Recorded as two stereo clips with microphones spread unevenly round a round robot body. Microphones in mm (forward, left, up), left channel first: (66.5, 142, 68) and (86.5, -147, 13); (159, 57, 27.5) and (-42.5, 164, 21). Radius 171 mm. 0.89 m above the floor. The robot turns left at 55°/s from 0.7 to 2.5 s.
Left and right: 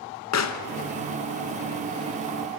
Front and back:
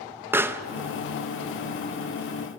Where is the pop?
75° left, 1.3 m.